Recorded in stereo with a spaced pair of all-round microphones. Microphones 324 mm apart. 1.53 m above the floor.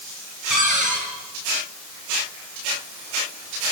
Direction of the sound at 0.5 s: 65° right (ahead or behind).